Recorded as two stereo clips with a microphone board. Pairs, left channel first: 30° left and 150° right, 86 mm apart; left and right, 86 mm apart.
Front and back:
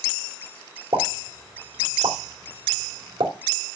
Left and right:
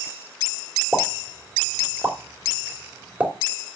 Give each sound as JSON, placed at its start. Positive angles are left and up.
{"t": 0.9, "sound": "a pop", "azimuth_deg": -165, "distance_m": 2.5}